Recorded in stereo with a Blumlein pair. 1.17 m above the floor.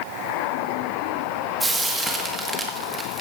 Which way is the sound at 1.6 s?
10° right.